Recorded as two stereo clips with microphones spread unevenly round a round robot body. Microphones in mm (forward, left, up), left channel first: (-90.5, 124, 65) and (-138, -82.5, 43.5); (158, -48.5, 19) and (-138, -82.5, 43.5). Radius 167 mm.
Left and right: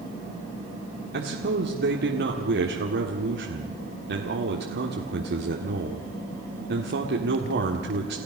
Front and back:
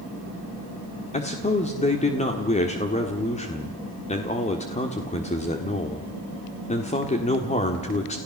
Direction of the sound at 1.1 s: 60° right.